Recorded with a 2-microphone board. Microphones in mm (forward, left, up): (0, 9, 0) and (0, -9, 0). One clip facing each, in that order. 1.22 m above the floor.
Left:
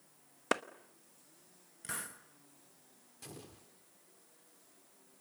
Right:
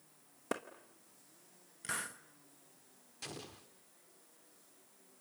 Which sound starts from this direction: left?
A clap, at 0.5 s.